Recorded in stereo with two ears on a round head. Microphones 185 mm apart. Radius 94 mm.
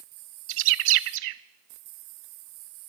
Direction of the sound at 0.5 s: 70° right (ahead or behind).